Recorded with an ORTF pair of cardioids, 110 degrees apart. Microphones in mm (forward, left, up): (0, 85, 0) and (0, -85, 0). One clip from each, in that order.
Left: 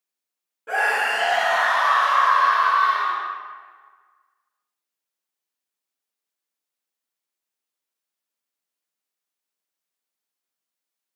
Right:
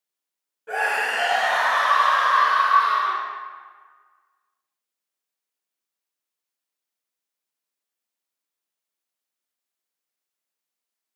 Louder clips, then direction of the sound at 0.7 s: Left 2 dB; 25° left.